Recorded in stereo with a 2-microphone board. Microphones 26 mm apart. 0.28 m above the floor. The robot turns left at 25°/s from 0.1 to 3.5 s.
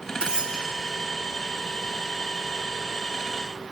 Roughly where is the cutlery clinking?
Right.